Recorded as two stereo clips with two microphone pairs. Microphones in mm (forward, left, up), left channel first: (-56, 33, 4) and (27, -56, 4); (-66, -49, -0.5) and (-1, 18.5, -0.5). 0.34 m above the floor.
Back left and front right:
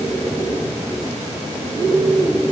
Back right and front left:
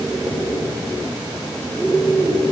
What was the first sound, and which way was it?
Only background noise.